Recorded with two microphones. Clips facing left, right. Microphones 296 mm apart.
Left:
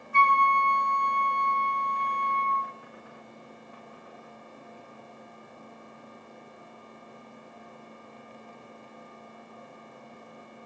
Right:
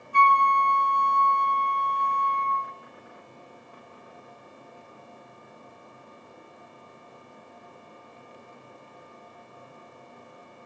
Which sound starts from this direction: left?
A flute, at 0.1 s.